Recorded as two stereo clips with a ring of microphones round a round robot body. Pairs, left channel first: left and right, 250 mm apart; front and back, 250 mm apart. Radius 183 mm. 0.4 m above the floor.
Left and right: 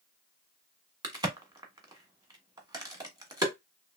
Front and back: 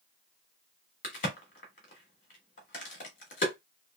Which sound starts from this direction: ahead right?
A crack, at 1.0 s.